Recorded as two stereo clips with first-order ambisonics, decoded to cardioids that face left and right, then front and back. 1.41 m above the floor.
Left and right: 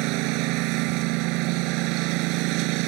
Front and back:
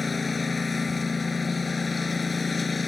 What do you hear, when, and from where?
0.0 s a lawn mower: 75° right